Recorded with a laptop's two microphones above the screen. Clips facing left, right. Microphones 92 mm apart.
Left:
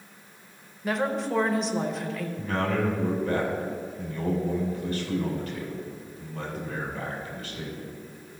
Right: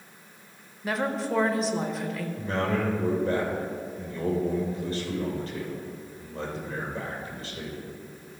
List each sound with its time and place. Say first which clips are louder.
0.8 s a woman speaking: left 1 dB; centre (ahead or behind), 0.6 m
2.4 s a man speaking: left 1 dB; 35° right (ahead or behind), 3 m